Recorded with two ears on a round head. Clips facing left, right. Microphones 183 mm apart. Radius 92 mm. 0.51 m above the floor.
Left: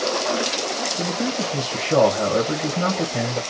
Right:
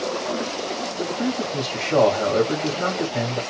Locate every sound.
1.0 s a man speaking: 40° left (ahead or behind), 3 m